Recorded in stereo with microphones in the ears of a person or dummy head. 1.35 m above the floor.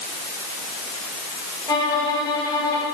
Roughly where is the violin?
Left.